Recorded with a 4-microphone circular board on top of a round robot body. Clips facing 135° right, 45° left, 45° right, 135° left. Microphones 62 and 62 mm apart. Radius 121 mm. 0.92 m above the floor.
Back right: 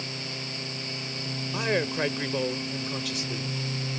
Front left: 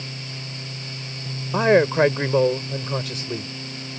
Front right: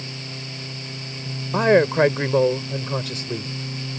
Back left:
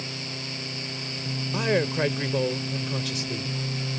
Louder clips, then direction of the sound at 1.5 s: Front left 11 dB, front right 9 dB; 5° right.